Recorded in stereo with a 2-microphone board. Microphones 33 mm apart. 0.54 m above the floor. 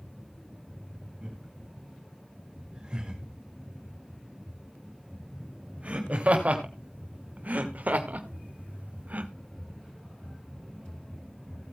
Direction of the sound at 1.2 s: 35° right (ahead or behind).